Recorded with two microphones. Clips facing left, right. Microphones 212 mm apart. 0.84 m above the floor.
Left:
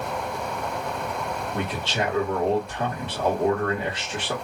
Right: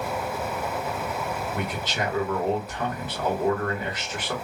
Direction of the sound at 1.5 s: 25° left (ahead or behind).